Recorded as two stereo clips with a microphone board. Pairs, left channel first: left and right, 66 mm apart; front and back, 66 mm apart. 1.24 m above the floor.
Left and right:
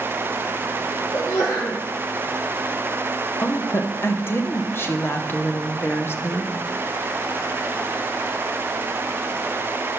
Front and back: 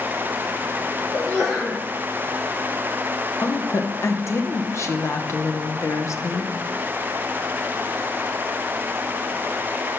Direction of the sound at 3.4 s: 35° left.